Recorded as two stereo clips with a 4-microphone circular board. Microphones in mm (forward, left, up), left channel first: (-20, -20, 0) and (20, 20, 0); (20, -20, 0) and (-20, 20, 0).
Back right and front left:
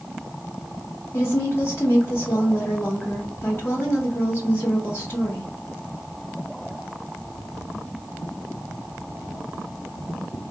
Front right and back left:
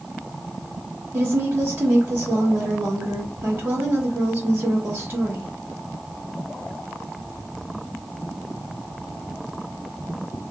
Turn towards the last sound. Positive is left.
turn(degrees=175)